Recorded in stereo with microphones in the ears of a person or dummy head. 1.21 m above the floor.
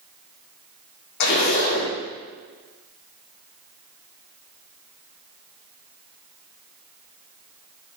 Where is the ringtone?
I don't hear a ringtone.